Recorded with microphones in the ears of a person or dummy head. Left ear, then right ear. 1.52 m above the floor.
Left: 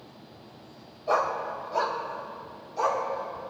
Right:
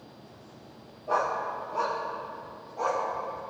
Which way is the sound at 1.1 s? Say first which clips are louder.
Left 2 dB; 60° left (ahead or behind).